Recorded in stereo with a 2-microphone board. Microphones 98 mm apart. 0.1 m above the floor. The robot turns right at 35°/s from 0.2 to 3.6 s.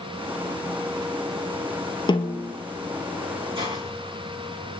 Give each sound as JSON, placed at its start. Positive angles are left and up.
{"t": 2.1, "sound": "a snare drum", "side_deg": 50, "distance_m": 1.7}
{"t": 3.5, "sound": "a hiss", "side_deg": -60, "distance_m": 6.0}